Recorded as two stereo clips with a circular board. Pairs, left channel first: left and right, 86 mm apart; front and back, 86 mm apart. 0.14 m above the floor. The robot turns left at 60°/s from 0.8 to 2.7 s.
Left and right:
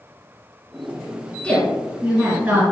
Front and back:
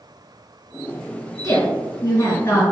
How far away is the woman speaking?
About 2.0 m.